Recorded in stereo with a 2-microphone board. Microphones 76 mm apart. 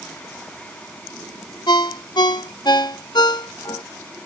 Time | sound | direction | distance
1.7 | a ringtone | 75° left (ahead or behind) | ?